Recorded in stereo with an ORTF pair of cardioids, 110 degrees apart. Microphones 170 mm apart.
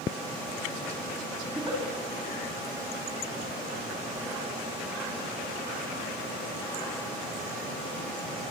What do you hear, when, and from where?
1.5 s a giggle: 25° right, 7 m